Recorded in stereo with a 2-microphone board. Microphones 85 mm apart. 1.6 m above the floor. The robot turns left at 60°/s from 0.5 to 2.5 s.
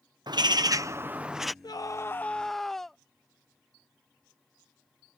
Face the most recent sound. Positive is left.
turn(degrees=5)